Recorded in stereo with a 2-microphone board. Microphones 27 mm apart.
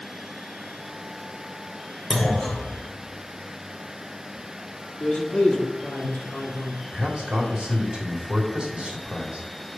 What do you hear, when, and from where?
2.1 s a clunk: 15° left (ahead or behind), 1.1 m
5.0 s a man speaking: 55° left (ahead or behind), 1.2 m
6.9 s a man speaking: 40° right (ahead or behind), 1.7 m